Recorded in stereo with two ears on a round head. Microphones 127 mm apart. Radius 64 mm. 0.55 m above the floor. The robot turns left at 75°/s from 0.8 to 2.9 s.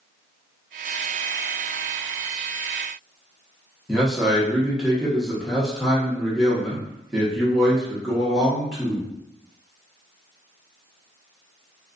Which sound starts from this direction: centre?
A man speaking, at 3.9 s.